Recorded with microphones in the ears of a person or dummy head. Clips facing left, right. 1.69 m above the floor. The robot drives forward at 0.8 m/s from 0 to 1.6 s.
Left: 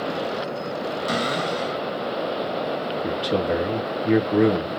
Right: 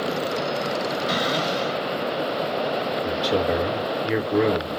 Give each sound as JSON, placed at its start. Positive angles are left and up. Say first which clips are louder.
{"t": 1.1, "sound": "a cupboard door", "louder": "even", "side_deg": 50, "distance_m": 1.2}
{"t": 3.0, "sound": "a man speaking", "louder": "even", "side_deg": -5, "distance_m": 0.9}